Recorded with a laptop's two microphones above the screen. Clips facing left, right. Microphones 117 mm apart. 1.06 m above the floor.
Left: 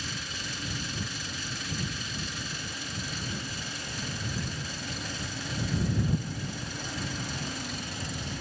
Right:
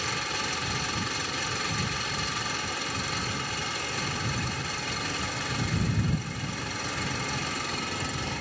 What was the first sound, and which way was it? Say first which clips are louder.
An engine running: right 7 dB; 85° right.